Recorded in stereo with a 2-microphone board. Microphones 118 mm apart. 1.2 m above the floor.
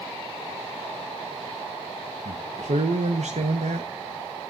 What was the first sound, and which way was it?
A man speaking, 75° right (ahead or behind).